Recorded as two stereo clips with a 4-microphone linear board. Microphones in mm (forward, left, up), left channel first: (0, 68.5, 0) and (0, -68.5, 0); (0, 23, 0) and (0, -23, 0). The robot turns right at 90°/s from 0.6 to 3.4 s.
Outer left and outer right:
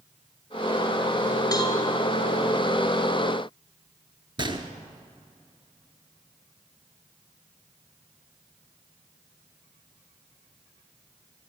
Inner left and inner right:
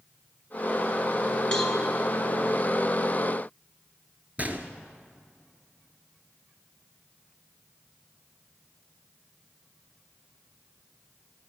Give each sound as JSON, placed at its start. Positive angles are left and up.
{"t": 1.5, "sound": "a cowbell", "side_deg": 25, "distance_m": 1.9}
{"t": 4.4, "sound": "a gunshot", "side_deg": -35, "distance_m": 0.9}